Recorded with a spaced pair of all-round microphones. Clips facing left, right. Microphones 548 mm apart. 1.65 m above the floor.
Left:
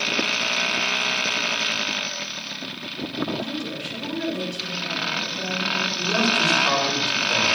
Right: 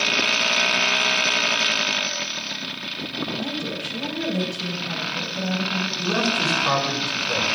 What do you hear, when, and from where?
3.4 s a woman speaking: 85° right, 7 m; by 5.9 s 70° right (ahead or behind), 7 m
6.0 s a man speaking: 75° right (ahead or behind), 8 m